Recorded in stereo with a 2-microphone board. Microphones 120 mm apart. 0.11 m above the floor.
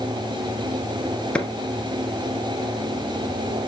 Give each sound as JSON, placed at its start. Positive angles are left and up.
{"t": 1.4, "sound": "a clap", "side_deg": 10, "distance_m": 1.6}